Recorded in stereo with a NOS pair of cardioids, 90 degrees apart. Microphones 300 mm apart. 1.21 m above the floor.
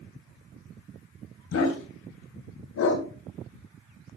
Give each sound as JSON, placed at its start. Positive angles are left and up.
{"t": 1.5, "sound": "a dog barking", "azimuth_deg": 60, "distance_m": 2.5}